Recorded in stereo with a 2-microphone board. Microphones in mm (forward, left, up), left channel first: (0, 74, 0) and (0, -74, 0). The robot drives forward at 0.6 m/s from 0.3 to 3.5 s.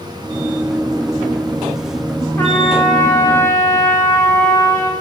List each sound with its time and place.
2.4 s a trumpet: 15° left (ahead or behind), 9 m; by 4.9 s 20° left (ahead or behind), 8.5 m